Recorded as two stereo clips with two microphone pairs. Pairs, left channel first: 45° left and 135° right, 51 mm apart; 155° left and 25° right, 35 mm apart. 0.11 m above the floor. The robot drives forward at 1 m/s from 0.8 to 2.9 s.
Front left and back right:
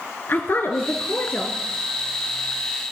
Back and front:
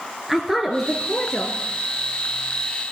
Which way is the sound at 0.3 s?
60° left.